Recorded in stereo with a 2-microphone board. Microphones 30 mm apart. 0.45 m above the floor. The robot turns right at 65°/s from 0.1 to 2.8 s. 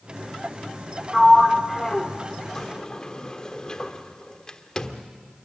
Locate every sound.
1.1 s a sliding door: 10° right (ahead or behind), 1.2 m; by 5.1 s 30° left (ahead or behind), 1.2 m